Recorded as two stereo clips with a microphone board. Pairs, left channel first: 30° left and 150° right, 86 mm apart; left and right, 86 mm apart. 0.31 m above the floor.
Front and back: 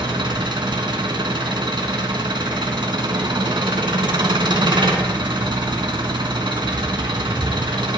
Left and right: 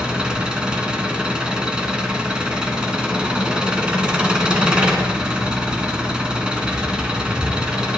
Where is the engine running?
170° right, 1.0 m.